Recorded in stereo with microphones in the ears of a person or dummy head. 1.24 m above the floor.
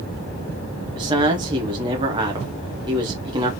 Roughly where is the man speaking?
Right.